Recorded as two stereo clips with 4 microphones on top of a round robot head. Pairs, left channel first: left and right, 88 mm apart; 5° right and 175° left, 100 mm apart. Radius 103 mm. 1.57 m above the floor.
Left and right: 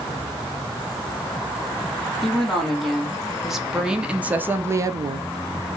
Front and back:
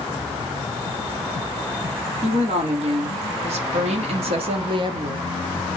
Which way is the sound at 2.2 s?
175° left.